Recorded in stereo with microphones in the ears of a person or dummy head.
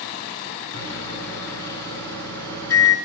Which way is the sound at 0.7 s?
20° left (ahead or behind).